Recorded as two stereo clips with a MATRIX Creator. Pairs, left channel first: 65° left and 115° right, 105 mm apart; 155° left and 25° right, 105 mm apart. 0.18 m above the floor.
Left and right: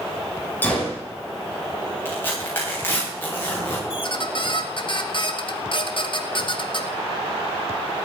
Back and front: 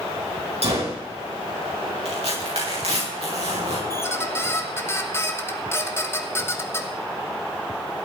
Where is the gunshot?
5° right, 5.5 m.